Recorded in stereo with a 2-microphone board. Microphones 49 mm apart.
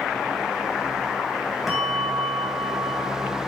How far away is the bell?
About 3 m.